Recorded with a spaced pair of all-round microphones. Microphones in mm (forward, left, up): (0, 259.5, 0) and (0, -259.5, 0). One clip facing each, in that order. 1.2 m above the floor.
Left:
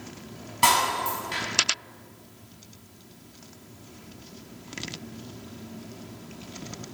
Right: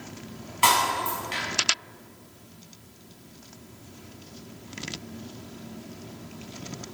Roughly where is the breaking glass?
Left.